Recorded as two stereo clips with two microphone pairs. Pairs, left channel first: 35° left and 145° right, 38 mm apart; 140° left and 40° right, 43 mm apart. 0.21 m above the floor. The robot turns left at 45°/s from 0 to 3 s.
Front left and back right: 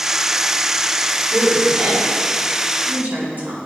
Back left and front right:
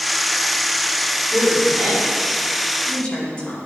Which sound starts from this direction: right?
A woman speaking, at 1.3 s.